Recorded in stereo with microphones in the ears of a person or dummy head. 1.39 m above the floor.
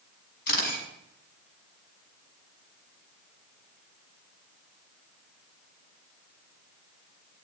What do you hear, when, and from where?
0.5 s a camera shutter: 50° left (ahead or behind), 6 m